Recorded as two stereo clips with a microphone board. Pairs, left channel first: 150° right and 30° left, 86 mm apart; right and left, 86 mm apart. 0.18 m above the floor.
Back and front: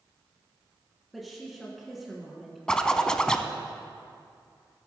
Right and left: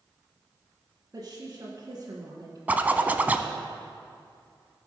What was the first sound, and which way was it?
A woman speaking, 120° left.